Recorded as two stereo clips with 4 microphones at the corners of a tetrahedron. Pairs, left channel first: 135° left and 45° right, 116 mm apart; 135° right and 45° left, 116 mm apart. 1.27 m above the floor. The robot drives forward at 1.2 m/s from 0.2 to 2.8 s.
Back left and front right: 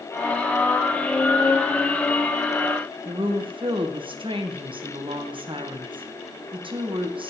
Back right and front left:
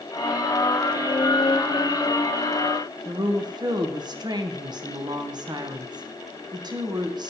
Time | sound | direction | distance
3.0 | a woman speaking | 5° right | 1.2 m